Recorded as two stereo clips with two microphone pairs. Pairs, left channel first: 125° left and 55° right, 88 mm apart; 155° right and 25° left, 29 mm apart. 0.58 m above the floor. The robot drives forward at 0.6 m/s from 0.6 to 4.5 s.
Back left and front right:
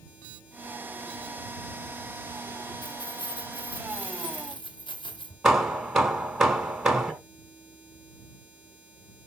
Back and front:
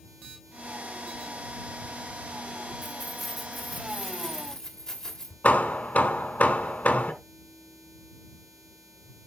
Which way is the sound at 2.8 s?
100° left.